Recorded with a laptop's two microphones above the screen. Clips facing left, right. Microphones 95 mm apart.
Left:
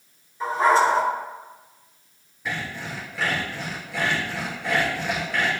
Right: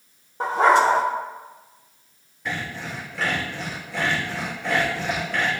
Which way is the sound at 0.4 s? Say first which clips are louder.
Right 2 dB; 60° right (ahead or behind).